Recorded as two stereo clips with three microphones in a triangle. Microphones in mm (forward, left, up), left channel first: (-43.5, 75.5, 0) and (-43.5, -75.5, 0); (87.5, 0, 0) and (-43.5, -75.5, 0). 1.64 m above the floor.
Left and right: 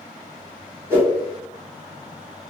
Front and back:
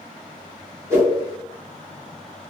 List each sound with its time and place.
0.9 s a whoosh: 130° right, 1.2 m